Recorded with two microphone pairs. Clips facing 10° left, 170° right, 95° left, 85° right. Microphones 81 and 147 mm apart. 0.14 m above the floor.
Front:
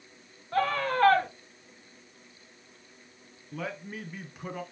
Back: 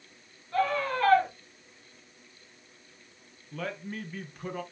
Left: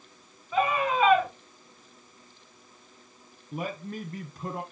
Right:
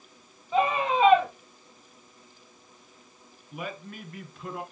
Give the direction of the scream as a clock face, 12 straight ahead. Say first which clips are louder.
Front 1 dB, right 1 dB; 1 o'clock.